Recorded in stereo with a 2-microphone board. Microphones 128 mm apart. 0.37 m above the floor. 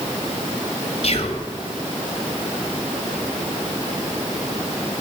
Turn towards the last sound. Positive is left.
turn(degrees=55)  # may be behind; listen again after turning